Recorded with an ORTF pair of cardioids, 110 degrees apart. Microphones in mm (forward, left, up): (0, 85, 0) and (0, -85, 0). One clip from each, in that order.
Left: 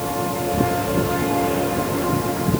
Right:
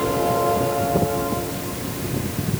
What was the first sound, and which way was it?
Only background noise.